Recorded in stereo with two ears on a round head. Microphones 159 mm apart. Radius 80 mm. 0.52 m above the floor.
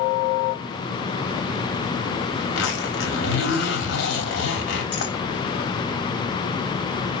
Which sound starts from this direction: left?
A zipper, at 2.4 s.